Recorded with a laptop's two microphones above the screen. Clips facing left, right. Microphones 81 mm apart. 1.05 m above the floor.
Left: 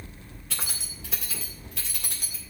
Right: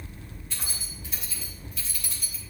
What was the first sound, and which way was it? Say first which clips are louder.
Keys jangling: left 4 dB; 80° left.